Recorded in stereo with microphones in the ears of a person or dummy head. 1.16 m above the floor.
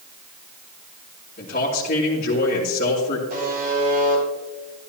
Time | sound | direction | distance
1.4 | a man speaking | 45° left (ahead or behind) | 3 m
3.3 | a buzzer | 45° right (ahead or behind) | 5.5 m